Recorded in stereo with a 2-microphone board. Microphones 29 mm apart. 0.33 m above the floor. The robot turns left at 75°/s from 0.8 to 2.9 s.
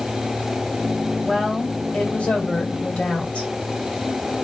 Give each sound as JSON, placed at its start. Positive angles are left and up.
{"t": 1.2, "sound": "a woman speaking", "azimuth_deg": 180, "distance_m": 2.0}